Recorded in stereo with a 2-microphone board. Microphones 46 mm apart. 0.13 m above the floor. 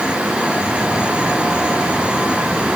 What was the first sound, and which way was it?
Only background noise.